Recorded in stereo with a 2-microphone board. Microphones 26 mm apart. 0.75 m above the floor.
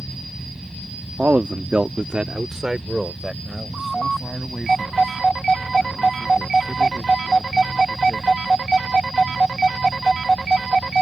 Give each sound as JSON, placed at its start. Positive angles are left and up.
{"t": 1.2, "sound": "a man speaking", "side_deg": -60}